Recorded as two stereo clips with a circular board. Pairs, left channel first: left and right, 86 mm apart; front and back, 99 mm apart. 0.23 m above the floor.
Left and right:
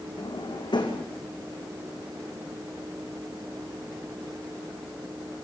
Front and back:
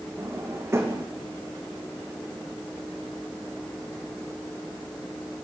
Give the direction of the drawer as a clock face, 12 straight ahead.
8 o'clock.